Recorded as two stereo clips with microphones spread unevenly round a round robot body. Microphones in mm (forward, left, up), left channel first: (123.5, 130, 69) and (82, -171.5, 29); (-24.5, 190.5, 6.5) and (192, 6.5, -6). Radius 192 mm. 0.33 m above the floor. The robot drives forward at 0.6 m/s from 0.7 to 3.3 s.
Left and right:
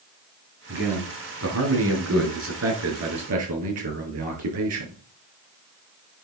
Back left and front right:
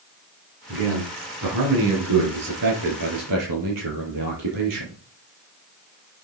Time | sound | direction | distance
0.7 | a man speaking | 55° right | 5.5 m